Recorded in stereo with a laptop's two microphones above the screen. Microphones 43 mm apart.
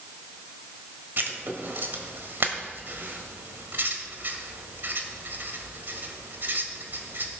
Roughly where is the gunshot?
I don't hear a gunshot.